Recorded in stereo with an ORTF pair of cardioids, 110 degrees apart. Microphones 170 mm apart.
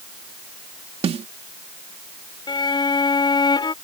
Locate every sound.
1.0 s a snare drum: 40° right
2.5 s a violin: 25° left